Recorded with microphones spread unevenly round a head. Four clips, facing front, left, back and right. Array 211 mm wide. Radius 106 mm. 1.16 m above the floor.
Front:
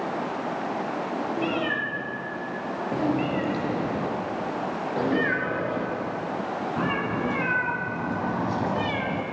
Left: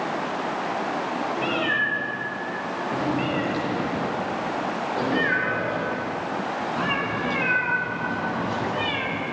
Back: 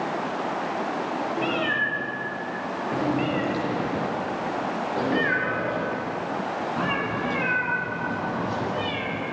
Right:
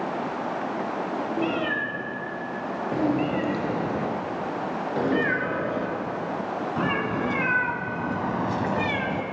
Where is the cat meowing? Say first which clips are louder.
Even, back 2 dB; 145° right, 5.5 m; by 9.2 s 115° right, 1.5 m.